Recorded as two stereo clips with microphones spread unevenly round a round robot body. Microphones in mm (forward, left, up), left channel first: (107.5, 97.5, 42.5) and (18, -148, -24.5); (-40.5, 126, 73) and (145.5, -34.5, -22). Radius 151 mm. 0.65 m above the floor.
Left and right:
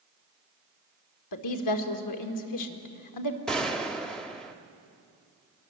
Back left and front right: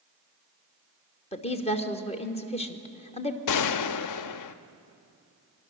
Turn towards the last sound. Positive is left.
turn(degrees=170)